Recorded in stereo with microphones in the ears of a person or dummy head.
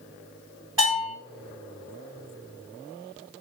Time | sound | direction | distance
0.8 | a bell | 10° right (ahead or behind) | 1.4 m